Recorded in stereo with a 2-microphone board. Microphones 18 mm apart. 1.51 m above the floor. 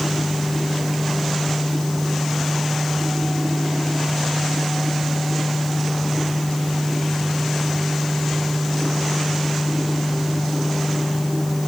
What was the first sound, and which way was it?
Only background noise.